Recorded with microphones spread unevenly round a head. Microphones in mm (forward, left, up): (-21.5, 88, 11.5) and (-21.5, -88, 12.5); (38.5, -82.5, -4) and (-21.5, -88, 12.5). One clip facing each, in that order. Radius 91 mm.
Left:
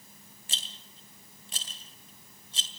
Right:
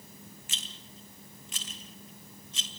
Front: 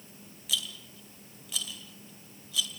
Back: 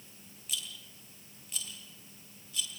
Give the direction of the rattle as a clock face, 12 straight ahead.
11 o'clock.